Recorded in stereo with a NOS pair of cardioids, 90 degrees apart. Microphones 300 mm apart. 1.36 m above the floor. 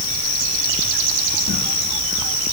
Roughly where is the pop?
No pop in this recording.